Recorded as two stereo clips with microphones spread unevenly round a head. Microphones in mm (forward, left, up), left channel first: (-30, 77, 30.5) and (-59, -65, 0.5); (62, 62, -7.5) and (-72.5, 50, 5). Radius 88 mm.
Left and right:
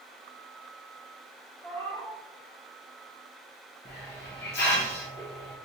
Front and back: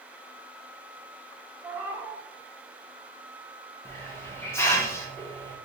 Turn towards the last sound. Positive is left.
turn(degrees=75)